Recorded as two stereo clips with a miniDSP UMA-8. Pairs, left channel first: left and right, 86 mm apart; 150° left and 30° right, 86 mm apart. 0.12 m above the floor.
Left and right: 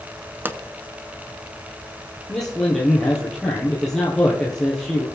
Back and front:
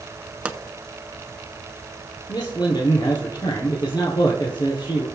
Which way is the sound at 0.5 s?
85° right.